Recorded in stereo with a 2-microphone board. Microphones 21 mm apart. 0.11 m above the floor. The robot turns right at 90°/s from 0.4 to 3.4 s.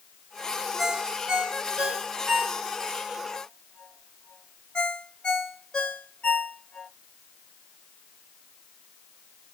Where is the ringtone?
5° right (ahead or behind), 1.0 m; by 6.9 s 50° left (ahead or behind), 1.0 m.